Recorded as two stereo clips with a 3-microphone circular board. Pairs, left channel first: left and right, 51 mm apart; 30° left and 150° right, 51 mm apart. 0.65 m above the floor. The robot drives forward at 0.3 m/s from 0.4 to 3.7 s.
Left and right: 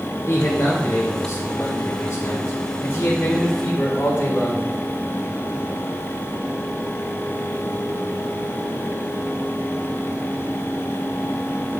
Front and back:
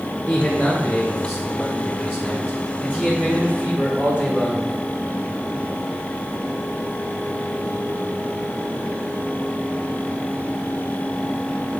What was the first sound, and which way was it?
A man speaking, 115° left.